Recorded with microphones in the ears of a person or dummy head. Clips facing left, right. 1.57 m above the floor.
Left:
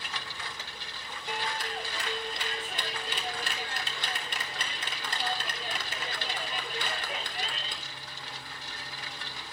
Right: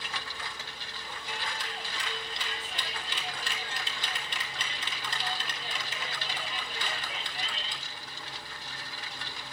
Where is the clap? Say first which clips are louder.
Left 5 dB; 50° left (ahead or behind), 3 m.